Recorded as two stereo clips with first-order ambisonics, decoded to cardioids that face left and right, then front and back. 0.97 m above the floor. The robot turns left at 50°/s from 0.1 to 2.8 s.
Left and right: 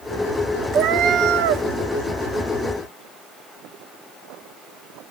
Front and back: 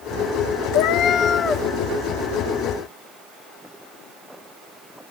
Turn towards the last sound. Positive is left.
turn(degrees=-135)